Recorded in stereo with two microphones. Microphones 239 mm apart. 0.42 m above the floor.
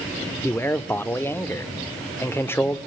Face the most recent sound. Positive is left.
turn(degrees=10)  # may be behind; listen again after turning